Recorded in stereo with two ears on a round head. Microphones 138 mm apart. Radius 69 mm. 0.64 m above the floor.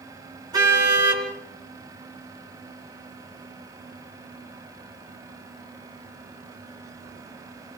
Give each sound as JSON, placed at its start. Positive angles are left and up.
{"t": 0.5, "sound": "a car horn", "side_deg": -25, "distance_m": 4.0}